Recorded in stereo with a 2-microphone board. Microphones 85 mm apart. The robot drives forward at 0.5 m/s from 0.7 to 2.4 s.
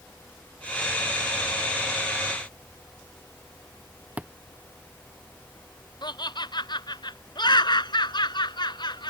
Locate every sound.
4.2 s a thud: 15° right (ahead or behind)
6.0 s laughter: 60° left (ahead or behind)